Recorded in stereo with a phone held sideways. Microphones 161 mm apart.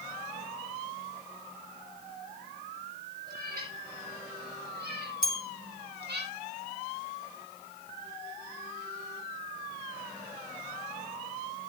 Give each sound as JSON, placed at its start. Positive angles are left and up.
{"t": 3.3, "sound": "a cat meowing", "side_deg": -70, "distance_m": 7.5}
{"t": 5.2, "sound": "a bell", "side_deg": 60, "distance_m": 2.5}